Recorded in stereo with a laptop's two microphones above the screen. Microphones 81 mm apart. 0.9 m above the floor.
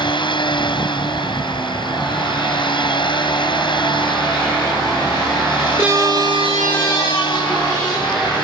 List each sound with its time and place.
0.0 s a machine running: 80° left